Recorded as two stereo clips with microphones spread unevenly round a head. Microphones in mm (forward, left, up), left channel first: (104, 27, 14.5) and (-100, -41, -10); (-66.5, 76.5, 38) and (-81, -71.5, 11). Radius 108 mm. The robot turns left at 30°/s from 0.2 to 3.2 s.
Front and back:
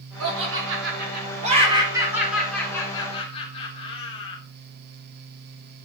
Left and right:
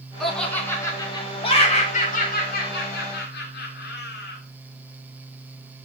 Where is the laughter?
175° left, 3.5 m; by 4.4 s 85° left, 3.5 m.